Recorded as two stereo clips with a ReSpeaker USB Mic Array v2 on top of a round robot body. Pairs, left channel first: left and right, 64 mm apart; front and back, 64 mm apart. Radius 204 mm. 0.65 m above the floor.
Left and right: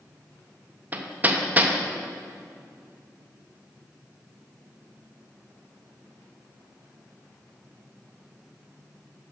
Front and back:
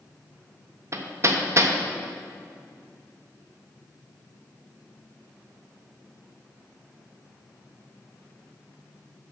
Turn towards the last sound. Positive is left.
turn(degrees=-150)